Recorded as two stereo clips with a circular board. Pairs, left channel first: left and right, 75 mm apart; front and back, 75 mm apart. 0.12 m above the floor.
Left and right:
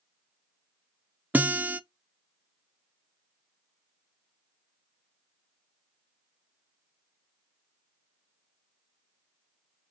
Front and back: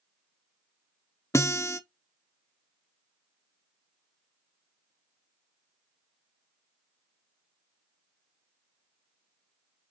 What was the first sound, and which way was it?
A guitar, 30° right.